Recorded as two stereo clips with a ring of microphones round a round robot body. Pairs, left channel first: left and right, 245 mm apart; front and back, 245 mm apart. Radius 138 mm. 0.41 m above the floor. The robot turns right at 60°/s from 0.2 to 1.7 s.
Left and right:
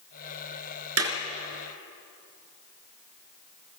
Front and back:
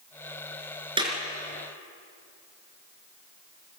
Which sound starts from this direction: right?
A clap, at 1.0 s.